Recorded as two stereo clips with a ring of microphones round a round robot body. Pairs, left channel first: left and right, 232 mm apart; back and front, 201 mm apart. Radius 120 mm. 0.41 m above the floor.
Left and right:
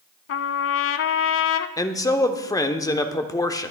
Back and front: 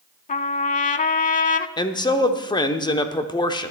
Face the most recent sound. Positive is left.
turn(degrees=145)